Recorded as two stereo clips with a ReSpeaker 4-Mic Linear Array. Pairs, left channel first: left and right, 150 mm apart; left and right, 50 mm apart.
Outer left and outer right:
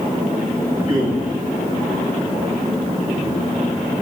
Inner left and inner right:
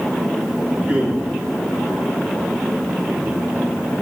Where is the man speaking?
30° right (ahead or behind), 3 m.